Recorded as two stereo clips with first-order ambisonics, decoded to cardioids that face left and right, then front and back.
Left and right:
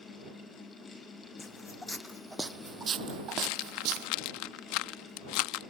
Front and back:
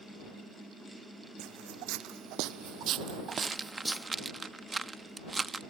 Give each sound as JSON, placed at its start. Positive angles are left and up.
{"t": 1.4, "sound": "footsteps", "azimuth_deg": 165}
{"t": 3.3, "sound": "a rattle", "azimuth_deg": 105}